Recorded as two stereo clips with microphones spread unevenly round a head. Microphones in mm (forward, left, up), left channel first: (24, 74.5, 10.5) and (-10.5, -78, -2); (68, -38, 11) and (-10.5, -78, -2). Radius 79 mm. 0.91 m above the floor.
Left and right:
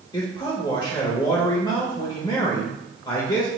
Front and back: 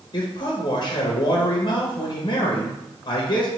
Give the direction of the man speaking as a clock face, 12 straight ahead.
11 o'clock.